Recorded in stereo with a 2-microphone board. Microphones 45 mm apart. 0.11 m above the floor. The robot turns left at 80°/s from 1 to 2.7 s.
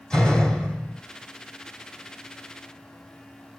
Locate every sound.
0.1 s a door slam: 15° left (ahead or behind), 2.5 m; by 1.0 s 20° left (ahead or behind), 2.5 m